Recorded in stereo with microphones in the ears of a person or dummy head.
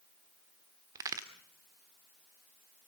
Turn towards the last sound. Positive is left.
turn(degrees=-20)  # may be behind; listen again after turning